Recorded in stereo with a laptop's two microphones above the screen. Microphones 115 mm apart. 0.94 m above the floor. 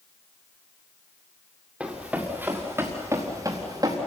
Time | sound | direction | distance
1.8 | running footsteps | 10° right (ahead or behind) | 5 m